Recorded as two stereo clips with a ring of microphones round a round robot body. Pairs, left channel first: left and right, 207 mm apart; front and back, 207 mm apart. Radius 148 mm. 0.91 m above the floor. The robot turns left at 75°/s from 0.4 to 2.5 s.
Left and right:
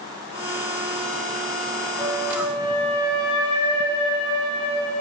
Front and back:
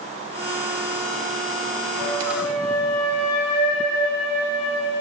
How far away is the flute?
About 5 m.